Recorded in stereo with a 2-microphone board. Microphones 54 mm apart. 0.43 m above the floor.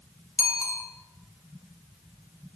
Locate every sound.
0.4 s a bicycle bell: 60° left (ahead or behind), 3.5 m